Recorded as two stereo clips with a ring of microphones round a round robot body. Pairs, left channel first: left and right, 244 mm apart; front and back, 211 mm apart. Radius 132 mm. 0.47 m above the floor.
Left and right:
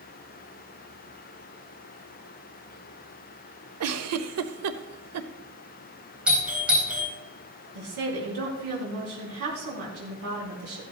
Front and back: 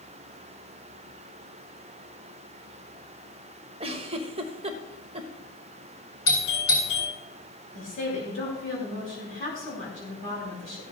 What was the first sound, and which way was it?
A giggle, 115° right.